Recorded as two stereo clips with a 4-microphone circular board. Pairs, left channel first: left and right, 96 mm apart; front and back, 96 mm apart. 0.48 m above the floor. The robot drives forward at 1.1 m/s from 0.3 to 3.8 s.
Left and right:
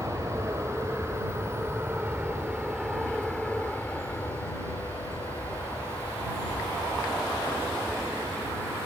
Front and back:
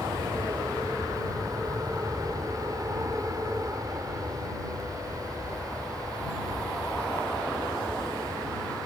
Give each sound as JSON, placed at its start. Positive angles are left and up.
{"t": 0.0, "sound": "an aircraft", "azimuth_deg": -125}